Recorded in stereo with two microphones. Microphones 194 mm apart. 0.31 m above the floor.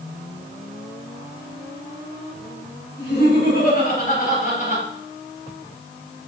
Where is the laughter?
60° left (ahead or behind), 3.5 m; by 4.8 s 45° left (ahead or behind), 5 m.